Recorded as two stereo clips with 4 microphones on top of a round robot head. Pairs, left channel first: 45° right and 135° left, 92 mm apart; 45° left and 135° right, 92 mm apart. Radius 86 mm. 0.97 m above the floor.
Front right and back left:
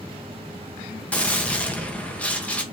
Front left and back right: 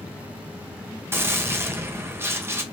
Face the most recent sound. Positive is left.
turn(degrees=-105)